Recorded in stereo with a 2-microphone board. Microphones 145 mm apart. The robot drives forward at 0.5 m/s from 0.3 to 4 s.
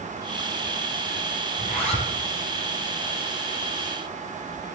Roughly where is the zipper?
Left.